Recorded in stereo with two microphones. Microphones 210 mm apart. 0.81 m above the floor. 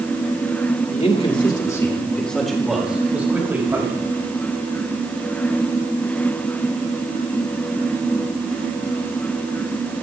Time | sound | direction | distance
0.9 | a man speaking | 35° left (ahead or behind) | 2 m